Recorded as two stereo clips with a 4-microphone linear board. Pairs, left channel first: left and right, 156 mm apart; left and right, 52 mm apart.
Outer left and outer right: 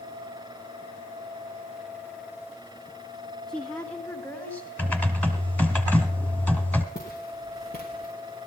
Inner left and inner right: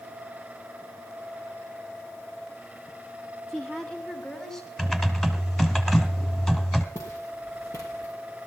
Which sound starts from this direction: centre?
Typing on a keyboard, at 4.8 s.